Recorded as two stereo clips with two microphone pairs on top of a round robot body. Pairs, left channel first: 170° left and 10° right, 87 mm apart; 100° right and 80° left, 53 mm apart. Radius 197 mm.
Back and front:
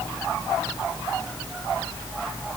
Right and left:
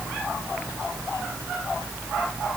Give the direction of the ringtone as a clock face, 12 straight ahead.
I don't hear a ringtone.